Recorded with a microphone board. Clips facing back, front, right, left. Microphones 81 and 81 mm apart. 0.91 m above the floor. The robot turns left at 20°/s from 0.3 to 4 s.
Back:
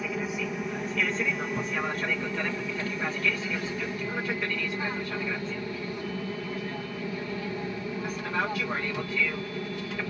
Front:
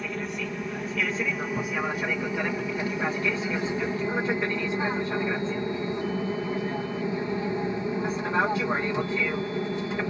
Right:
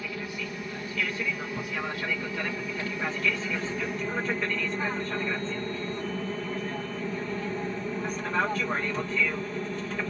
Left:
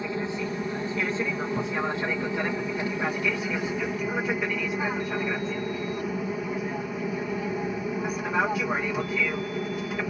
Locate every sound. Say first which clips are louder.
0.0 s an aircraft: back 1 dB, left 6 dB; 100° left; by 10.1 s 25° left